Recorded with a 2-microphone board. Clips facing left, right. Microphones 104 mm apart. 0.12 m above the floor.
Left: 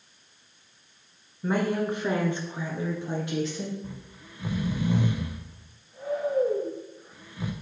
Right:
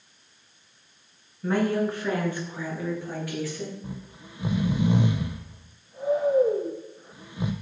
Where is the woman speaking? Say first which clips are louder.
Right 2 dB; 10° left (ahead or behind), 1.4 m; by 3.7 s 20° left (ahead or behind), 2.5 m.